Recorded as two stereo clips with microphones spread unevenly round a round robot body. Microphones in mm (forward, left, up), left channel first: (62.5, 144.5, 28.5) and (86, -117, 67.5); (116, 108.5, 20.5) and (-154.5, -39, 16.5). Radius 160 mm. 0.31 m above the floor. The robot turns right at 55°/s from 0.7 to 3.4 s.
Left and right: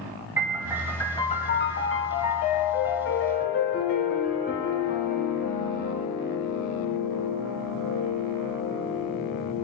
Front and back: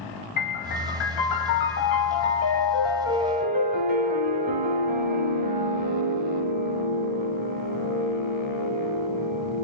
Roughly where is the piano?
Ahead.